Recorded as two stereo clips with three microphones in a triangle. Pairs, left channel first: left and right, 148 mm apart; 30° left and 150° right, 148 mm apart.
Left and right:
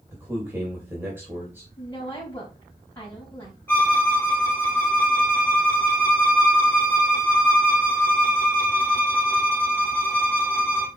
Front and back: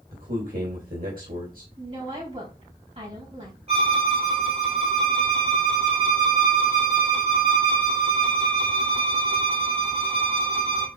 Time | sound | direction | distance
0.1 | a man speaking | 165° right | 3 m
1.8 | a woman speaking | 165° left | 4.5 m
3.7 | a violin | 165° left | 2.5 m